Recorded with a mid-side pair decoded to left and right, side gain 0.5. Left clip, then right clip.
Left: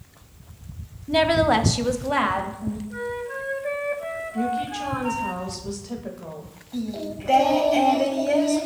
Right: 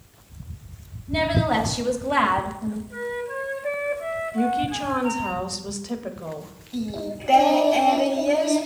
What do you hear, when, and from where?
1.1 s a woman speaking: 60° left, 0.7 m; by 2.8 s 30° right, 0.7 m
2.9 s a flute: 5° left, 0.6 m
4.3 s a woman speaking: 35° right, 0.7 m
6.7 s singing: 15° right, 0.6 m